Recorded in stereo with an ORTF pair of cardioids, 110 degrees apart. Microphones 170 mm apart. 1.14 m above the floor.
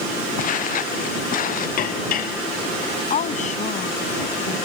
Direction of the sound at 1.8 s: 55° left.